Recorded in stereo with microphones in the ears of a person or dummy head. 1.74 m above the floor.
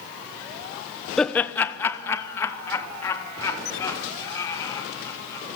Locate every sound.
1.2 s laughter: 5° left (ahead or behind), 0.9 m; by 5.5 s 20° left (ahead or behind), 6.5 m